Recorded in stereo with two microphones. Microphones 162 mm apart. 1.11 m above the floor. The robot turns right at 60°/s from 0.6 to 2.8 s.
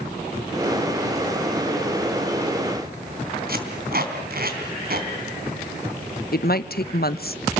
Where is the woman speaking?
65° left (ahead or behind), 0.8 m.